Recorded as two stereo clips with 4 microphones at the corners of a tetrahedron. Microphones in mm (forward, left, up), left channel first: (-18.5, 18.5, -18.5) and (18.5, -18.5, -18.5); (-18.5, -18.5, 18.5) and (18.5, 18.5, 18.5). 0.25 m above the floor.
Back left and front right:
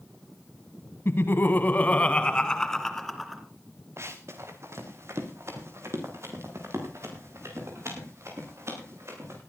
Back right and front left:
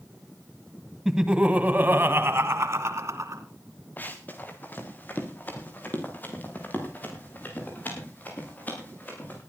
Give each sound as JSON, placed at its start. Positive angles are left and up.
{"t": 1.1, "sound": "laughter", "azimuth_deg": 125, "distance_m": 1.6}
{"t": 4.0, "sound": "running footsteps", "azimuth_deg": -80, "distance_m": 3.0}